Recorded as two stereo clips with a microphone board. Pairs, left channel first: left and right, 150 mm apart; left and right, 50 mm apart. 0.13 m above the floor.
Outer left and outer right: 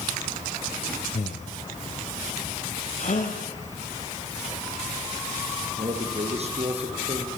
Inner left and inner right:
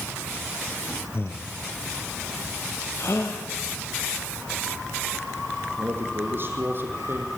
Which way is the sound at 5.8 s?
45° right (ahead or behind).